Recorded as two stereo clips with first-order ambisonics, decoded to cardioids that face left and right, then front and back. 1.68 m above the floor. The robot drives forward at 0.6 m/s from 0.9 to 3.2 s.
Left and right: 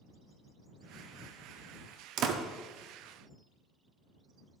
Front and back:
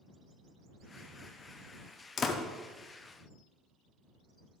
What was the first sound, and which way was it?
A door slam, 60° right.